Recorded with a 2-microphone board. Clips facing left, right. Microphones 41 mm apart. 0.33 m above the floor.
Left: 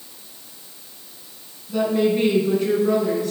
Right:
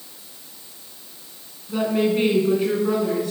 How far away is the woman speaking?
About 3 m.